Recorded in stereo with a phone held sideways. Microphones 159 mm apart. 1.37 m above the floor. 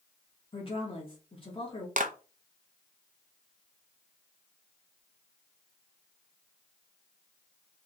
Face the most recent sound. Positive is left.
turn(degrees=-55)  # may be behind; listen again after turning